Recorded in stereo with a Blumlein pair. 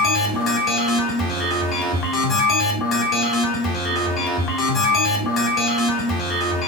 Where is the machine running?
25° left, 1.0 m.